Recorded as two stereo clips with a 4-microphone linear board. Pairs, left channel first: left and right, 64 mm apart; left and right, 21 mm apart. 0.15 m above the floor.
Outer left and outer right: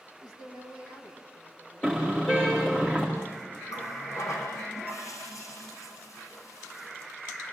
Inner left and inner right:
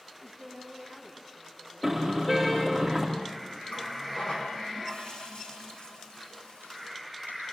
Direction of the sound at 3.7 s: 50° left (ahead or behind).